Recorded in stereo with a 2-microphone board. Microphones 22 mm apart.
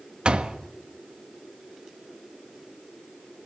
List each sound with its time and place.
0.2 s a door slam: 55° right (ahead or behind), 1.4 m